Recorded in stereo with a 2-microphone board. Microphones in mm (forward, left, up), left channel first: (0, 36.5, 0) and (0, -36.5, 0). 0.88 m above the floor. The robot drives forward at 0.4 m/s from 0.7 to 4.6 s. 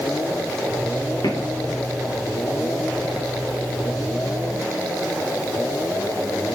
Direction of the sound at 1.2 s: 75° left (ahead or behind).